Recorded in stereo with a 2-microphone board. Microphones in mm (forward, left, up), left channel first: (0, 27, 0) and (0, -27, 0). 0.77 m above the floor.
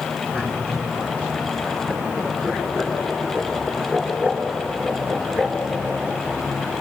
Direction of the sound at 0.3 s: 15° left (ahead or behind).